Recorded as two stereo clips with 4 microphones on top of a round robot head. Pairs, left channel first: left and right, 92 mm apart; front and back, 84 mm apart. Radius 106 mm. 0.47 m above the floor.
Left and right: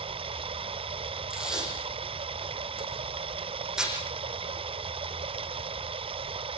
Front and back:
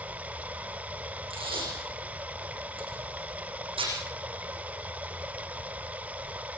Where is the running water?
105° right, 1.0 m.